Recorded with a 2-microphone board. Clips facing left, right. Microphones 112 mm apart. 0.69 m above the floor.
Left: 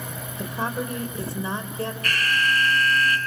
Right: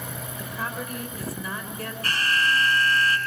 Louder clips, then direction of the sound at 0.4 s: Left 6 dB; 25° left (ahead or behind).